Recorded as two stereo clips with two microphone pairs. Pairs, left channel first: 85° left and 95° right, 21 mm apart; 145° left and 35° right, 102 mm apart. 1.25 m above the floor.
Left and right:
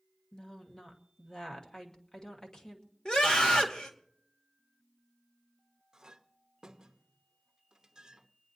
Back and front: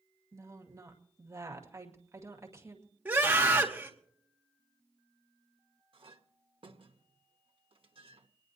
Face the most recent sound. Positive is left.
turn(degrees=-45)